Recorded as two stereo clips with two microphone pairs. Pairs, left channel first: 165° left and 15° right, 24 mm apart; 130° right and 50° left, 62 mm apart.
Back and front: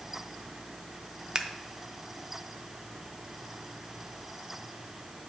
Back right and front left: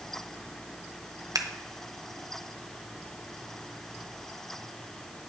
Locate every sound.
1.4 s scissors: 45° left, 0.5 m